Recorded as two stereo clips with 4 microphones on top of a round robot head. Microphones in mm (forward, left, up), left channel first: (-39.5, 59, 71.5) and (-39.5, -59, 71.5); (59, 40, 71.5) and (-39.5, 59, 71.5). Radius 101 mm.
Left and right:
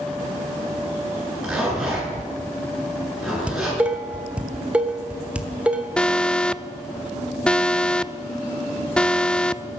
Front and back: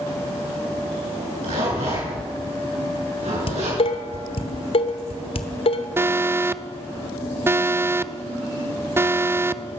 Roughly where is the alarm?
Behind.